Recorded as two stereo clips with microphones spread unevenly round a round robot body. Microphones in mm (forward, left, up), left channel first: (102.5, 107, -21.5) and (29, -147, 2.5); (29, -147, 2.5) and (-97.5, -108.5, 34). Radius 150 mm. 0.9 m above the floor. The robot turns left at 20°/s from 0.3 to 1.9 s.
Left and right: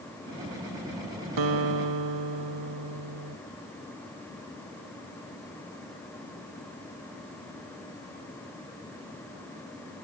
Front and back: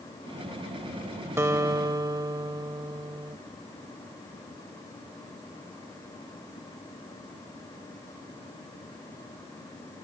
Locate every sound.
1.4 s a guitar: 130° right; by 3.4 s 140° right